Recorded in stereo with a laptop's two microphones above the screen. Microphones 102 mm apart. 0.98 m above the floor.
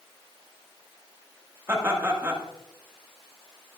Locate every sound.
1.7 s laughter: 25° right (ahead or behind), 1.7 m